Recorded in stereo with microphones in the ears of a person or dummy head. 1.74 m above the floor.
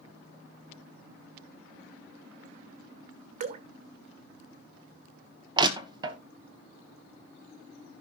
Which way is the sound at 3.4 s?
35° right (ahead or behind).